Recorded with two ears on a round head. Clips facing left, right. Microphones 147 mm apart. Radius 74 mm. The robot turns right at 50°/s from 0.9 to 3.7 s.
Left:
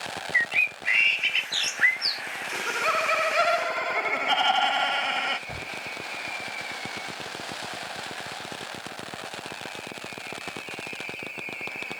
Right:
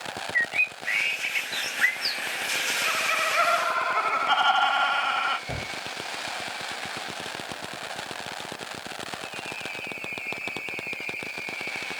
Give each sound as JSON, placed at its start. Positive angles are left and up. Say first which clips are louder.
{"t": 0.3, "sound": "a bird", "louder": "even", "azimuth_deg": 55}
{"t": 2.5, "sound": "laughter", "louder": "left 7 dB", "azimuth_deg": 100}
{"t": 5.5, "sound": "a gunshot", "louder": "right 4 dB", "side_deg": -45}